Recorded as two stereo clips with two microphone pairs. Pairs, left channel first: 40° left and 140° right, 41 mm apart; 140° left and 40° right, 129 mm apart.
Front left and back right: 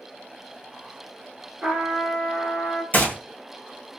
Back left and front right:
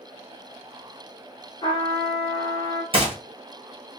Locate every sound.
1.6 s a trumpet: 165° left, 1.0 m
2.9 s a gunshot: 5° right, 1.3 m